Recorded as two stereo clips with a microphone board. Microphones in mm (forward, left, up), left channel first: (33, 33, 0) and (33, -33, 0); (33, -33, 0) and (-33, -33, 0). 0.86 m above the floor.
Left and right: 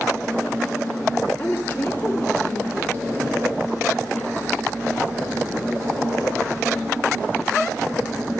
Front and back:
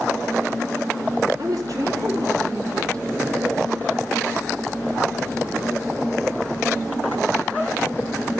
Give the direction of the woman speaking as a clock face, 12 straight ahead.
7 o'clock.